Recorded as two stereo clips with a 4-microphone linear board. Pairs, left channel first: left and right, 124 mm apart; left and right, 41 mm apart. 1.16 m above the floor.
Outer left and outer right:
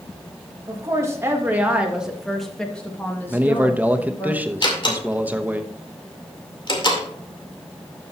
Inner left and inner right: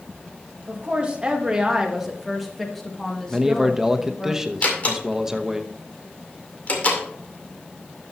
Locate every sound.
0.7 s a woman speaking: 30° right (ahead or behind), 1.8 m; by 4.3 s 30° left (ahead or behind), 2 m
3.3 s a man speaking: 15° right (ahead or behind), 0.8 m
4.6 s a door slam: 40° left (ahead or behind), 2 m